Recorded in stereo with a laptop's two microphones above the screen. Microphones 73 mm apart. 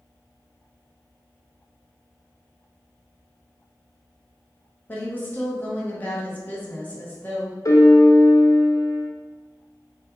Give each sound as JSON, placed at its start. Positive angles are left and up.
{"t": 4.9, "sound": "a woman speaking", "side_deg": 25, "distance_m": 1.0}
{"t": 7.7, "sound": "a piano", "side_deg": 50, "distance_m": 0.8}